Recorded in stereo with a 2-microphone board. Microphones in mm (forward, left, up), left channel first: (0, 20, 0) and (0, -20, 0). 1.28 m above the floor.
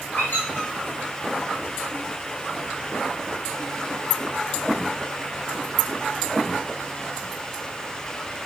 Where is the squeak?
65° left (ahead or behind), 1.9 m.